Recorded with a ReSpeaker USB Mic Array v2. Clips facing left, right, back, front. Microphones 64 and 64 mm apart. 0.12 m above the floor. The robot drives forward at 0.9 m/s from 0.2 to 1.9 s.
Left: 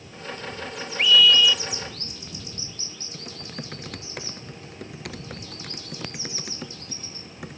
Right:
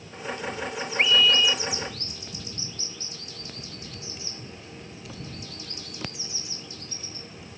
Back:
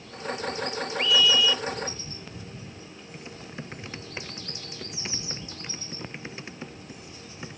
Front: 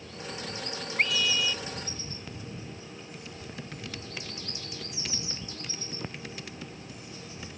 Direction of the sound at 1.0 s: 35° right.